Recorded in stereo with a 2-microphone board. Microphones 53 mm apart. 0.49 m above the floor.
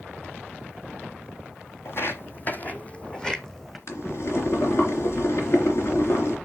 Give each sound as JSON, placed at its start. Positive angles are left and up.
{"t": 1.9, "sound": "footsteps", "side_deg": 55, "distance_m": 1.0}
{"t": 3.9, "sound": "boiling", "side_deg": 65, "distance_m": 3.5}